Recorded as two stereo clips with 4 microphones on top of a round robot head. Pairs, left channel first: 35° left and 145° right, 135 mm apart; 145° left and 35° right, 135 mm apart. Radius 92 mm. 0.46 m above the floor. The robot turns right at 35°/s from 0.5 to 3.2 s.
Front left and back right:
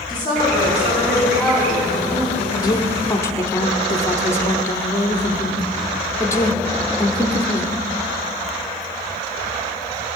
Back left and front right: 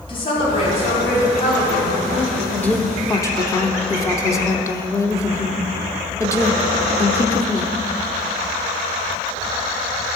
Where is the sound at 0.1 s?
95° left, 3.5 m; by 2.4 s 160° left, 3.5 m.